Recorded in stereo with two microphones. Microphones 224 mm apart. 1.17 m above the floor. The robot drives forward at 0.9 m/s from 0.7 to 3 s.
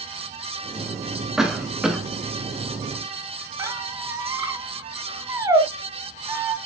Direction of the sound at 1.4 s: Centre (ahead or behind).